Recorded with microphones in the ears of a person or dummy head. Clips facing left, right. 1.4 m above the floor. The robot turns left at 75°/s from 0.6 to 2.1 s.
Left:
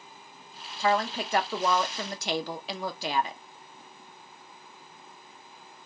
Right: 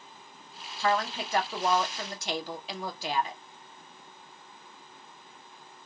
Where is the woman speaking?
170° left, 0.7 m; by 3.4 s 70° left, 0.7 m.